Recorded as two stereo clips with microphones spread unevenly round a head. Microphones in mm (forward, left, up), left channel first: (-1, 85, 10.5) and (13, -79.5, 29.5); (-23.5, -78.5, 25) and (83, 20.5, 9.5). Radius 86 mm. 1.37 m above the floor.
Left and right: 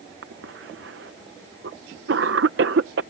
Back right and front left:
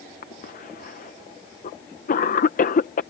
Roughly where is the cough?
Right.